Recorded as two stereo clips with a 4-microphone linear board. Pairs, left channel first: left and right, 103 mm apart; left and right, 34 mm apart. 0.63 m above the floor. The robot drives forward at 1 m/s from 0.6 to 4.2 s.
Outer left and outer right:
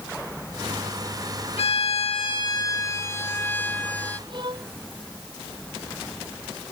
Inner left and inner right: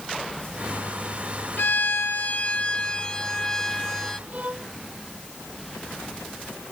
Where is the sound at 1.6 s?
70° left (ahead or behind); by 4.2 s 15° left (ahead or behind).